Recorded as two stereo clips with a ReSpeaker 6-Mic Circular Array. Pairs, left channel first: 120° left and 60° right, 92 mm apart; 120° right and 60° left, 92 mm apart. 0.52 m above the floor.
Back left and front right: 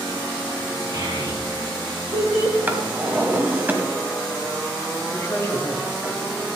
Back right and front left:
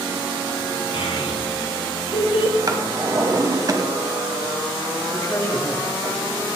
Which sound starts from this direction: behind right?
A child speaking, at 0.9 s.